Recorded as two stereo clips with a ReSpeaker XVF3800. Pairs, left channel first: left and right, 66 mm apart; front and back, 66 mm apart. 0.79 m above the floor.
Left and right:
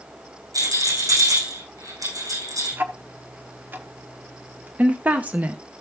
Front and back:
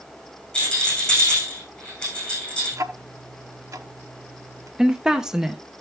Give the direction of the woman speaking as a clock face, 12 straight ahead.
4 o'clock.